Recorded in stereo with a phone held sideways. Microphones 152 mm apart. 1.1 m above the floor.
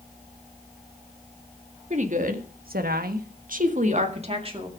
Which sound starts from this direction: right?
A woman speaking, at 1.9 s.